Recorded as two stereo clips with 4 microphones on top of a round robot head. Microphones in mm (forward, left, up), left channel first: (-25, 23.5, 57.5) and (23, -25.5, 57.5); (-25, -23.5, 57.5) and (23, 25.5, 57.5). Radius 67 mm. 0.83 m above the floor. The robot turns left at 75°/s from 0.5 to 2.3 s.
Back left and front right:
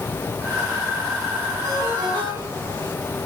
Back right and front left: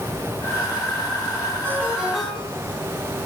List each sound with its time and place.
1.6 s a ringtone: 5° right, 5 m; by 2.8 s 55° right, 5 m